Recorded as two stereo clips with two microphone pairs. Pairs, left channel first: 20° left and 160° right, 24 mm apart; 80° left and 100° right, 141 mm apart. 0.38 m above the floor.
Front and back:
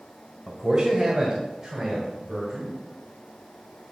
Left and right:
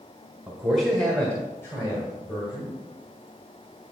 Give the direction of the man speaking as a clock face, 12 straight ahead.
6 o'clock.